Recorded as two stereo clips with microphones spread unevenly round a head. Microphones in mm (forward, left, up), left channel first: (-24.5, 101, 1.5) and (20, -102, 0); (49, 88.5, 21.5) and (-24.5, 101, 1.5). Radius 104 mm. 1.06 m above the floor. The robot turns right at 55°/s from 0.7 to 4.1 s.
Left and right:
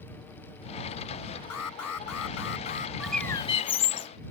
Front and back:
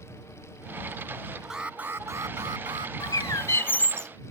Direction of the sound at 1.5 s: 85° left.